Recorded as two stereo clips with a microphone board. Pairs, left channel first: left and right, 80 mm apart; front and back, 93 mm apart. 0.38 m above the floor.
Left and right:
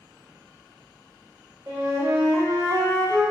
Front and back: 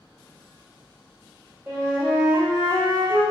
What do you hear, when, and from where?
1.7 s a flute: 125° right, 0.9 m